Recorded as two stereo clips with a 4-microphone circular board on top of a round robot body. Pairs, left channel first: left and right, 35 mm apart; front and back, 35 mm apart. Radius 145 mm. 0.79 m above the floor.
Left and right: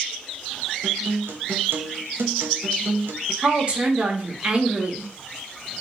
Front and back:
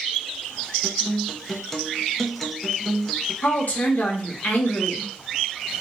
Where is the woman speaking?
30° right, 1.0 m.